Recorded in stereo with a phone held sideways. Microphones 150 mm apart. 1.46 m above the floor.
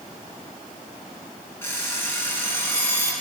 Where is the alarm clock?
15° left (ahead or behind), 7.5 m.